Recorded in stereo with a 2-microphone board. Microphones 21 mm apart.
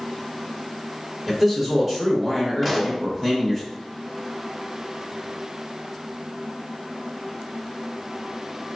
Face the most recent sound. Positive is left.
turn(degrees=-5)  # may be behind; listen again after turning